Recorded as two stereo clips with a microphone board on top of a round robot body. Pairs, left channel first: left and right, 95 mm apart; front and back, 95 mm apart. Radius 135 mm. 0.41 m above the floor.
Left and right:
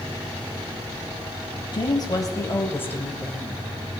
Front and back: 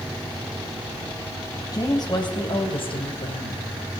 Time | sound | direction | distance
1.7 | a woman speaking | 50° left | 3.5 m